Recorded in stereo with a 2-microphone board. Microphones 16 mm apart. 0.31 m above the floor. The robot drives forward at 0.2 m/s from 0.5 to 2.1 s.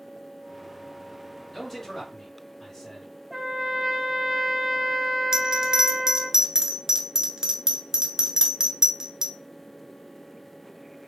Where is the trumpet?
10° right (ahead or behind), 1.2 m.